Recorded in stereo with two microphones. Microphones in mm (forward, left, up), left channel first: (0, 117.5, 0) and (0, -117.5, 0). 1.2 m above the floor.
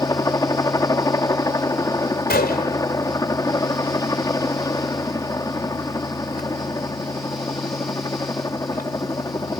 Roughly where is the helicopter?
Centre.